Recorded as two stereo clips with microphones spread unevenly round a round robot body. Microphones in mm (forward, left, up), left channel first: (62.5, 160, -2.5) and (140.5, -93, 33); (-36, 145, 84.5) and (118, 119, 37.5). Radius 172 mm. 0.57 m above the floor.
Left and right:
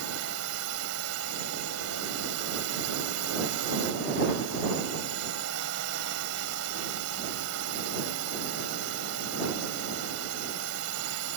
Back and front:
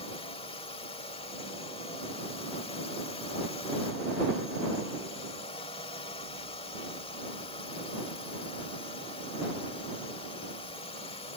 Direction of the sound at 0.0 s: 120° right.